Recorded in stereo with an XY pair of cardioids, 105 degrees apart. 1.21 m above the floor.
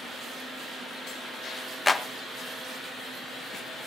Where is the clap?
15° left, 1.2 m.